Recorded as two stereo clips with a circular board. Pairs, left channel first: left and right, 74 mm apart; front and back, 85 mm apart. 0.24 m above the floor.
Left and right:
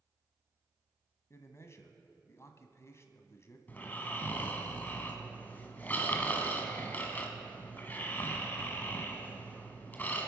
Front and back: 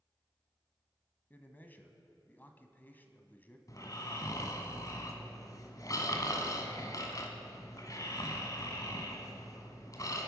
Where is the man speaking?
60° left, 1.4 m.